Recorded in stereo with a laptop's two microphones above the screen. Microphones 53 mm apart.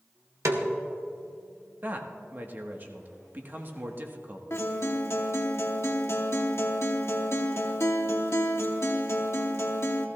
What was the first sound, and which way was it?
A snare drum, 70° right (ahead or behind).